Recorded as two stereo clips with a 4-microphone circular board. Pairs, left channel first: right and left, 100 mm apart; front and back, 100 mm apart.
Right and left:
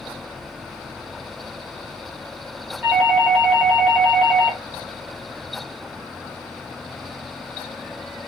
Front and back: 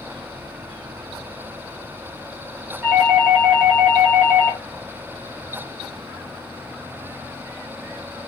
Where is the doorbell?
170° left, 1.4 m.